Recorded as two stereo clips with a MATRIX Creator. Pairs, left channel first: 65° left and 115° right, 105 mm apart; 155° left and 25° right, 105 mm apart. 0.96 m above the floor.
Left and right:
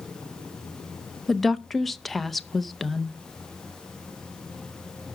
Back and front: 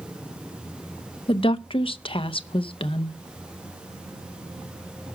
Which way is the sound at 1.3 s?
155° left.